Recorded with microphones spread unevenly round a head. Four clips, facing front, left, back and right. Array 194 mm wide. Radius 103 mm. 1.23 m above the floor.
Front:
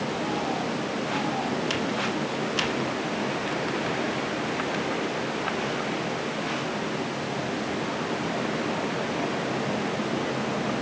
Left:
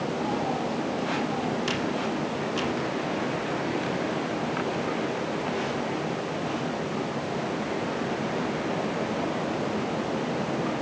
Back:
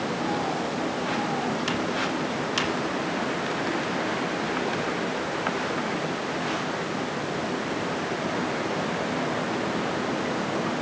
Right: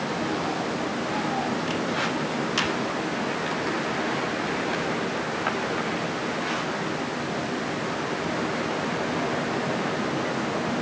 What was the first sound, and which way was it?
Only background noise.